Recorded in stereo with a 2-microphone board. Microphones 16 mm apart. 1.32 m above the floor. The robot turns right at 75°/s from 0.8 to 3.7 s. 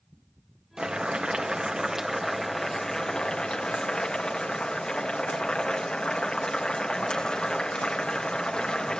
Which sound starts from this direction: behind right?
Boiling, at 0.8 s.